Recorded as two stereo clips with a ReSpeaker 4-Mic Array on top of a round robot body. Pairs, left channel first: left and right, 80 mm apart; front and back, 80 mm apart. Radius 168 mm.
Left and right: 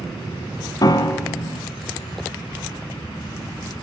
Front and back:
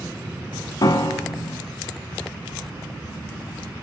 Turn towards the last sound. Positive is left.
turn(degrees=45)